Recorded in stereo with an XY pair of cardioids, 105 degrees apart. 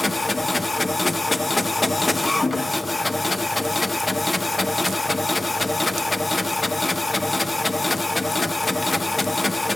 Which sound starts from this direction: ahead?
A machine running, at 0.0 s.